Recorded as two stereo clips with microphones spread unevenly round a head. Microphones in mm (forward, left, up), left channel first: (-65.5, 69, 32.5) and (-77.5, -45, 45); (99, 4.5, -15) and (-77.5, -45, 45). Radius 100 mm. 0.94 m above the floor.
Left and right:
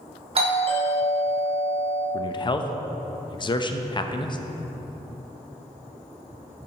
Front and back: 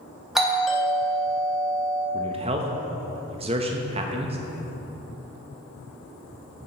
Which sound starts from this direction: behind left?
A man speaking, at 2.1 s.